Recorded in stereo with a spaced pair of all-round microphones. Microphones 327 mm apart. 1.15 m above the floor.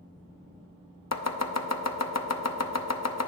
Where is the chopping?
50° left (ahead or behind), 0.6 m.